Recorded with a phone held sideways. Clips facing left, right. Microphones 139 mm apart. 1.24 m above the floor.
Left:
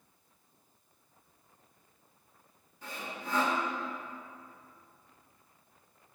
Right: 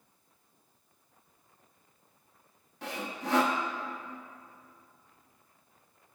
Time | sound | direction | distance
2.8 | sawing | 75° right (ahead or behind) | 0.8 m